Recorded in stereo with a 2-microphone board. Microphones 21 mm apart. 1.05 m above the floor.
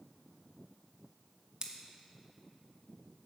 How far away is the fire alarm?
No fire alarm in this recording.